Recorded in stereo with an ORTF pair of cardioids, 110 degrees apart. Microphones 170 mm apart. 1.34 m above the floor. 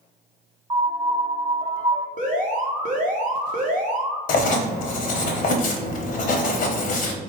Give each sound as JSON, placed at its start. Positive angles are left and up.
{"t": 0.7, "sound": "a piano", "azimuth_deg": -30, "distance_m": 0.7}
{"t": 2.2, "sound": "an alarm", "azimuth_deg": -55, "distance_m": 0.9}
{"t": 4.3, "sound": "writing", "azimuth_deg": 60, "distance_m": 0.9}